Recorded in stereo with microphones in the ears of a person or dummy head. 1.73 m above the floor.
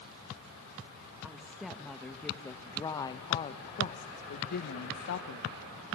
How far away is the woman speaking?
About 2 m.